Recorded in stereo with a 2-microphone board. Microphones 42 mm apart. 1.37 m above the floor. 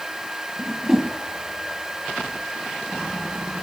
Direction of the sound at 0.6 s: 10° right (ahead or behind).